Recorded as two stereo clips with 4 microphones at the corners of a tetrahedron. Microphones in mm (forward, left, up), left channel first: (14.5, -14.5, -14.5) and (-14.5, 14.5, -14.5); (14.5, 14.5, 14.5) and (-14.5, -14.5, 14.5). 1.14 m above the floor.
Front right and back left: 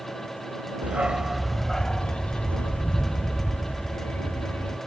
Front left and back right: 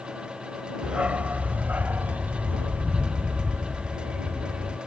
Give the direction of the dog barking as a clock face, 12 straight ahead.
6 o'clock.